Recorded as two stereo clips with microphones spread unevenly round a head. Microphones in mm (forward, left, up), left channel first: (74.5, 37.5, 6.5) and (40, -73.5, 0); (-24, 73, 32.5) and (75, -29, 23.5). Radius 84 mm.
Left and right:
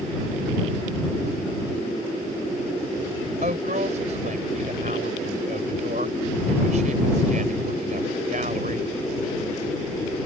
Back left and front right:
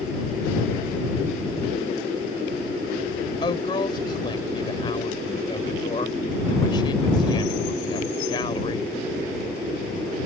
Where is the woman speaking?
160° right.